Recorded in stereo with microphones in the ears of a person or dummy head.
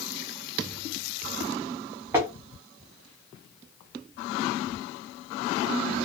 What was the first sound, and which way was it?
Tapping, 10° right (ahead or behind).